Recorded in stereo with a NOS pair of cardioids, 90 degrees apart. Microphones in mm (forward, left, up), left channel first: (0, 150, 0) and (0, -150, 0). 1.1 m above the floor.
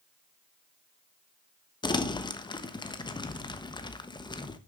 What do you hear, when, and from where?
1.8 s crumpling: 15° left, 1.1 m